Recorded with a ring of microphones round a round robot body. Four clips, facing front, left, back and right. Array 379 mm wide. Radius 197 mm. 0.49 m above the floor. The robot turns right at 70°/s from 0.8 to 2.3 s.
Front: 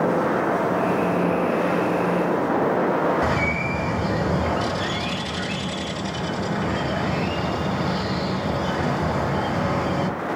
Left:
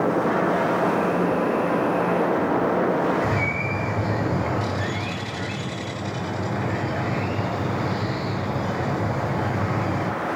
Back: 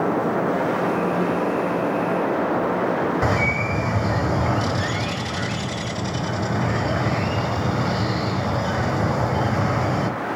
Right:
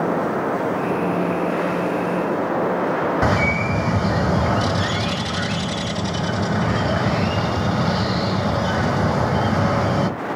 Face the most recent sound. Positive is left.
turn(degrees=-115)